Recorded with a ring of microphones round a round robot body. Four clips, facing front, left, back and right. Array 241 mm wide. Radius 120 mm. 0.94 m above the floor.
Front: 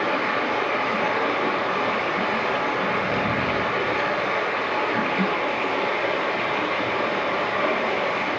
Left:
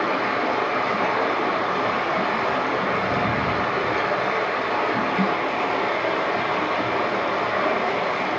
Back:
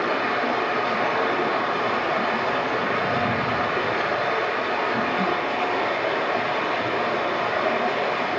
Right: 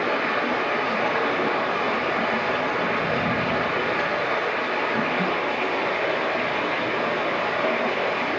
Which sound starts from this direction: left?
Running water, at 0.0 s.